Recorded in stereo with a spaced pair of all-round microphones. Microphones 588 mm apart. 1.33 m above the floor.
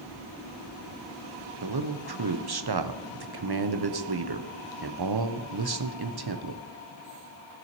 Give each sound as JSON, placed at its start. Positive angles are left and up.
{"t": 1.6, "sound": "a man speaking", "side_deg": -40, "distance_m": 0.7}